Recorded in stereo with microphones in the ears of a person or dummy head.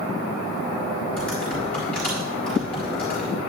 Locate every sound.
1.2 s typing on a keyboard: 5° left (ahead or behind), 3.5 m